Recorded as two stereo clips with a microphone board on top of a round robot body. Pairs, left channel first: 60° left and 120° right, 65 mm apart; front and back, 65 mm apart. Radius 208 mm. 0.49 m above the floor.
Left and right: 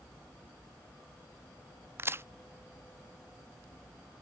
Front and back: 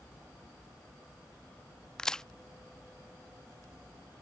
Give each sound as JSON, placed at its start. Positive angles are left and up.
{"t": 2.0, "sound": "a crack", "azimuth_deg": -80}